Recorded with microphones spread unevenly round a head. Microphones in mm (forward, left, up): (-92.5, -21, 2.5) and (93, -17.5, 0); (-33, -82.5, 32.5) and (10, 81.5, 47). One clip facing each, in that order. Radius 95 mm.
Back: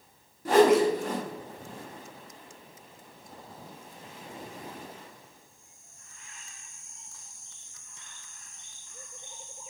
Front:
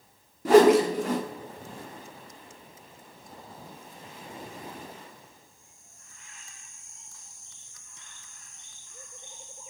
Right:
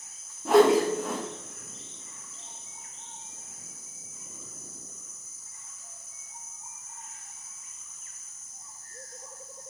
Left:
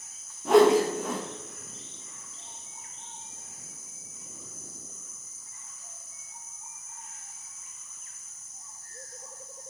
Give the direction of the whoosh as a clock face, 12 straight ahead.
1 o'clock.